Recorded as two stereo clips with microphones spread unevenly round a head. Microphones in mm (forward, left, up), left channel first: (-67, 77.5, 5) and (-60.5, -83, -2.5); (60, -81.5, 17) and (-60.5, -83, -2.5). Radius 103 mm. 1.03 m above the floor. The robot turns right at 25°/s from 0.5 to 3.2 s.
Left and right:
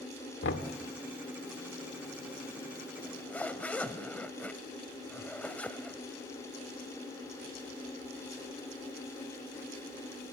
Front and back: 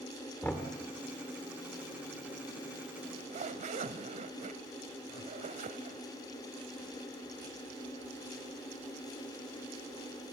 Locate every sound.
0.4 s knocking: 80° left, 1.8 m; by 0.7 s 85° left, 1.8 m
3.0 s a zipper: 165° left, 1.2 m; by 6.0 s 170° left, 1.2 m